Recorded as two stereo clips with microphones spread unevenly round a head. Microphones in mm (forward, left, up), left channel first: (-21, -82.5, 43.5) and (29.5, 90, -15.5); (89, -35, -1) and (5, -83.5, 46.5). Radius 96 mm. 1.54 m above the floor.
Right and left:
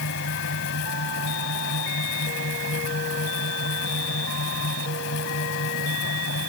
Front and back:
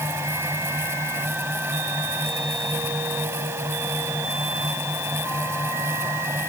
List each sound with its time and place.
0.0 s a fan: 90° right